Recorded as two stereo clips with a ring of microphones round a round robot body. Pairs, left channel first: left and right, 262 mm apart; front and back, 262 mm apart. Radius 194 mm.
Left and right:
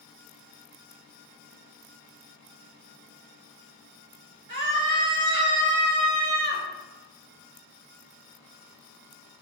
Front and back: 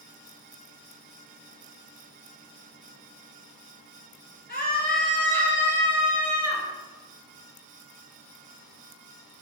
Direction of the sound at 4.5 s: 115° right.